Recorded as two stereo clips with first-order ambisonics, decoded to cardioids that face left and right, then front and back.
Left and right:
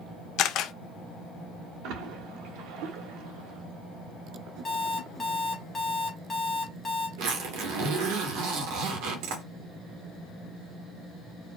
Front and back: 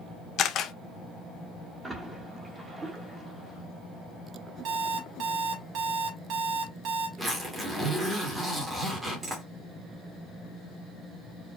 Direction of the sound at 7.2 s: 105° right.